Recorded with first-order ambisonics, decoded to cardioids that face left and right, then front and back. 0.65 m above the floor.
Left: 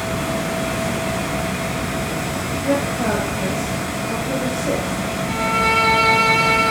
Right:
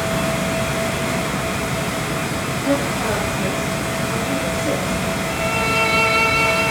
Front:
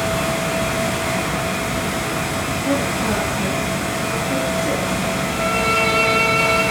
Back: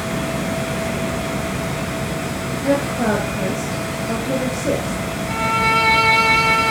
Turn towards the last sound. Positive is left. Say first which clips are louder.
# left 4 dB, back 3 dB
turn(degrees=140)